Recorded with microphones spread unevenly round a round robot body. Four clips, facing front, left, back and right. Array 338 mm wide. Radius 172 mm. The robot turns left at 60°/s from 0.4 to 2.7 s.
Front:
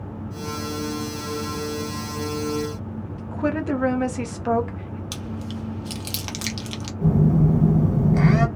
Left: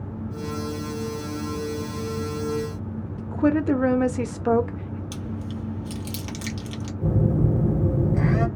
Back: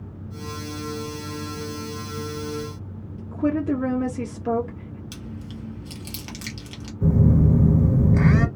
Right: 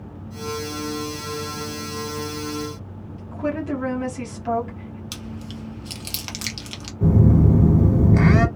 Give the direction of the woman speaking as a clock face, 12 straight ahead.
9 o'clock.